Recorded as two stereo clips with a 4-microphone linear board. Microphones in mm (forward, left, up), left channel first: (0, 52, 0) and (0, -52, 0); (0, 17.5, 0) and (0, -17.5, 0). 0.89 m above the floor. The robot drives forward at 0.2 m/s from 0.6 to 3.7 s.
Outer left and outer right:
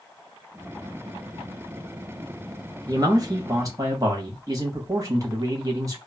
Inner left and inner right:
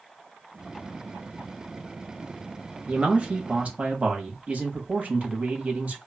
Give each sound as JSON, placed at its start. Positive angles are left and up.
{"t": 2.9, "sound": "a man speaking", "side_deg": -40, "distance_m": 0.8}